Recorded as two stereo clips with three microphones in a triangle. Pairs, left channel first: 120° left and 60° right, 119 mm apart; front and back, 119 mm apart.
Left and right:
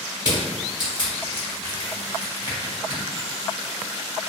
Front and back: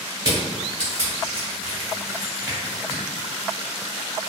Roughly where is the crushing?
Behind left.